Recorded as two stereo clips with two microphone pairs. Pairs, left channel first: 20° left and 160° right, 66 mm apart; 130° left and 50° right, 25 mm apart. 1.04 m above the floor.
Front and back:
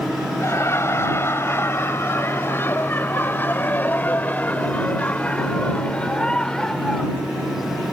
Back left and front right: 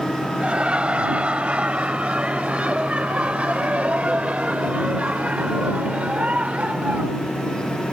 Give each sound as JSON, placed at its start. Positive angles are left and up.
{"t": 0.4, "sound": "laughter", "azimuth_deg": -25}